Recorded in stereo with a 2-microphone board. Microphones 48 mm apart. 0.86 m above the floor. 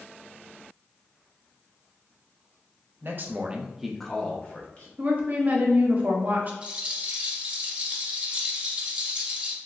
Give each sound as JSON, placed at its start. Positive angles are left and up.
{"t": 3.0, "sound": "a man speaking", "side_deg": -50, "distance_m": 0.6}
{"t": 5.0, "sound": "a woman speaking", "side_deg": -35, "distance_m": 0.6}
{"t": 6.6, "sound": "a rattle", "side_deg": -25, "distance_m": 1.0}